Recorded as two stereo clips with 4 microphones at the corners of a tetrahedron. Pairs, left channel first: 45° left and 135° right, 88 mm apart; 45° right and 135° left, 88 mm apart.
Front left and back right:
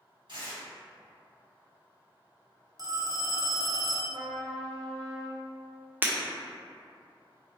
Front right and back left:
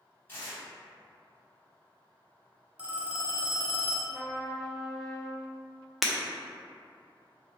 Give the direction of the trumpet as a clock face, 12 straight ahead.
4 o'clock.